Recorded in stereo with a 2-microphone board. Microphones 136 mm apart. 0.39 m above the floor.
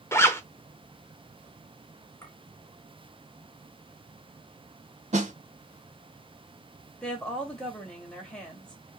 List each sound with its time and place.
0.1 s a zipper: 20° left (ahead or behind), 0.6 m
2.2 s a clink: 20° left (ahead or behind), 2.5 m
5.1 s a snare drum: 60° right (ahead or behind), 1.0 m
7.0 s a woman speaking: 5° left (ahead or behind), 2 m